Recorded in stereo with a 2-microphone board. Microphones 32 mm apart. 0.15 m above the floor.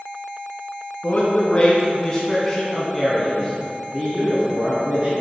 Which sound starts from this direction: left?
A man speaking, at 1.0 s.